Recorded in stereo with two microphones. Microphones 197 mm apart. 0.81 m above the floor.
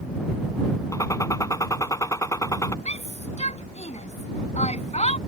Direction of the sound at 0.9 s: 15° left (ahead or behind).